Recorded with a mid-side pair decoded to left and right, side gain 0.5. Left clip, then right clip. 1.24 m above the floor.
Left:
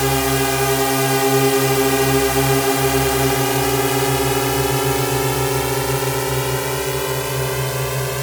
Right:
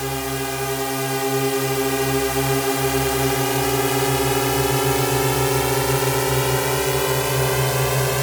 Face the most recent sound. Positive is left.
turn(degrees=-15)